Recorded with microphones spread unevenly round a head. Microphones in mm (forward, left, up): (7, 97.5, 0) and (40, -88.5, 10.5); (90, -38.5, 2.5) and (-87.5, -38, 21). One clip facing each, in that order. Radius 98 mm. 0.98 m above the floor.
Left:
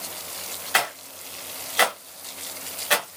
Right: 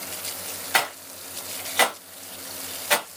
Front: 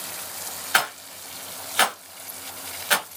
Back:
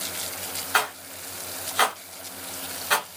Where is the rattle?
25° left, 0.9 m.